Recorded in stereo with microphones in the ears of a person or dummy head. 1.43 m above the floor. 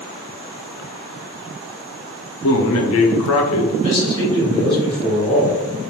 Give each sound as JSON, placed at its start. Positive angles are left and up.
{"t": 2.4, "sound": "a man speaking", "side_deg": 70, "distance_m": 0.7}
{"t": 3.8, "sound": "a man speaking", "side_deg": 25, "distance_m": 1.7}